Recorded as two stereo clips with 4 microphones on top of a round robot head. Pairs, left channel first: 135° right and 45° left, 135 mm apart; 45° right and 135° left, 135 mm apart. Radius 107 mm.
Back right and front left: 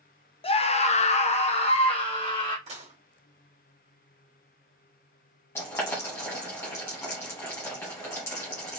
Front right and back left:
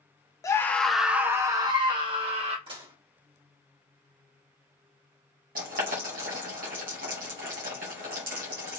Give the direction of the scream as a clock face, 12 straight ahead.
3 o'clock.